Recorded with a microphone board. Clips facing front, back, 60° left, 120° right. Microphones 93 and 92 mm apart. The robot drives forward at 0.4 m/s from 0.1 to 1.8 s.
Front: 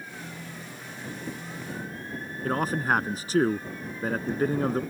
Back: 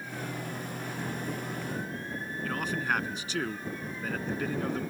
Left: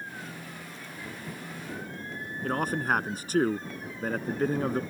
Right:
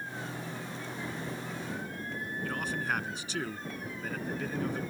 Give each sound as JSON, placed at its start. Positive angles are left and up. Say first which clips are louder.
{"t": 2.4, "sound": "a man speaking", "louder": "front 6 dB, left 7 dB", "azimuth_deg": 35}